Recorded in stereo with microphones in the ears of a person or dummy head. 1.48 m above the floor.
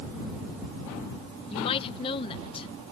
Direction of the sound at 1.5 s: 30° left (ahead or behind).